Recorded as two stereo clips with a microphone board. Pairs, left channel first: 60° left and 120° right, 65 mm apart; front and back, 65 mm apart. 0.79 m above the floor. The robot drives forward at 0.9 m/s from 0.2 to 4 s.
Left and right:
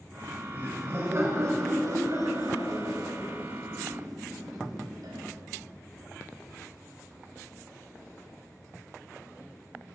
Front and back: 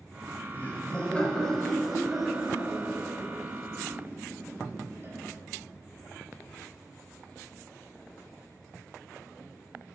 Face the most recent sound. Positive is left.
turn(degrees=-125)